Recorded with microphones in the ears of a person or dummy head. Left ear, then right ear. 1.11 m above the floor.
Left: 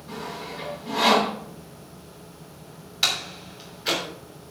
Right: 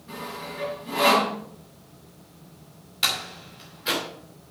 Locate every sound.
0.1 s sawing: centre (ahead or behind), 5 m
3.0 s a door slam: 5° left (ahead or behind), 2.5 m